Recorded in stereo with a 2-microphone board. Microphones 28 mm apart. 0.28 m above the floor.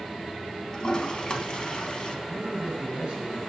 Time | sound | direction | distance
0.7 | a toilet flushing | 35° left (ahead or behind) | 0.7 m
2.3 | a man speaking | 25° right (ahead or behind) | 3 m